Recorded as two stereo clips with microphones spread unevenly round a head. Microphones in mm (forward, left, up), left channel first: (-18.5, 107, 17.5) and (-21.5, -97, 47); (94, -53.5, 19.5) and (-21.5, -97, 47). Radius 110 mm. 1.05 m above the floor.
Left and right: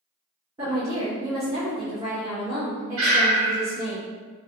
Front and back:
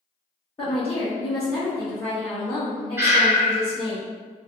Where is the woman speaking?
20° right, 1.3 m.